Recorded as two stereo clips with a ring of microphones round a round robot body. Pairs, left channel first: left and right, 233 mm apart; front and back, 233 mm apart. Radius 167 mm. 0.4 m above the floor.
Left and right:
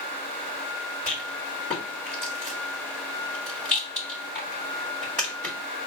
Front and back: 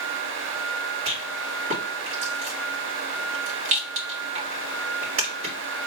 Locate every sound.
1.1 s a rattle: 170° left, 2 m